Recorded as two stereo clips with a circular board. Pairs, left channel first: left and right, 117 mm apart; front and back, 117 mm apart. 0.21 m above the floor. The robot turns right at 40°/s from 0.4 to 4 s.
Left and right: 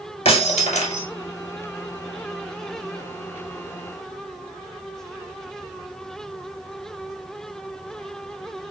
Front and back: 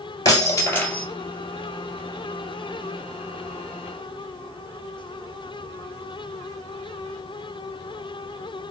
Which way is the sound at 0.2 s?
60° left.